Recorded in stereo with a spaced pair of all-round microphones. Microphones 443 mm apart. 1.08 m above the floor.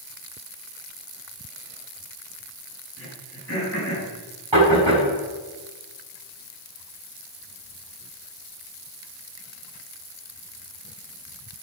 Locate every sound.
3.0 s throat clearing: 30° left (ahead or behind), 6.5 m
4.5 s knocking: 85° right, 8.5 m